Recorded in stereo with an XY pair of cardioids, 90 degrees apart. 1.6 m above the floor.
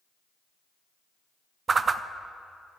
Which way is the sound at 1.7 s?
40° right.